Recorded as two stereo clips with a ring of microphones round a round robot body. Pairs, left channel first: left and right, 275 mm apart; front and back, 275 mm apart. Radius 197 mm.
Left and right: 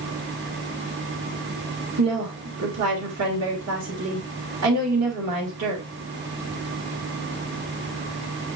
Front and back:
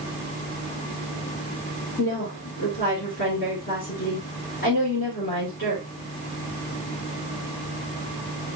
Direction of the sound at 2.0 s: 65° right.